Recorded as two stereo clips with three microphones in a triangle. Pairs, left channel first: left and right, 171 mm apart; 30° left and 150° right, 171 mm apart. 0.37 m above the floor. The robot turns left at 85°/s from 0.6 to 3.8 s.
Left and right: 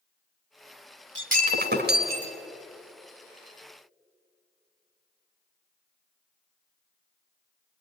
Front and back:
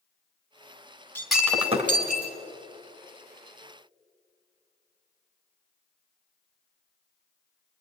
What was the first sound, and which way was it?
Breaking glass, 45° right.